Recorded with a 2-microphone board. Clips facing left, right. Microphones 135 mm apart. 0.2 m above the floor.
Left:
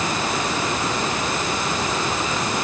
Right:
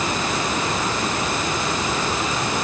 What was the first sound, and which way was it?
Only background noise.